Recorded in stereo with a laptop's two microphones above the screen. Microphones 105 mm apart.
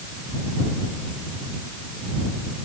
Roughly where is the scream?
I don't hear a scream.